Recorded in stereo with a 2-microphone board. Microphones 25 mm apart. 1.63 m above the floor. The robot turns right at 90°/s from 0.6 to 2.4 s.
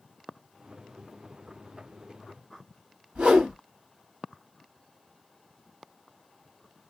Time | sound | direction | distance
3.1 | a whoosh | 50° right (ahead or behind) | 1.7 m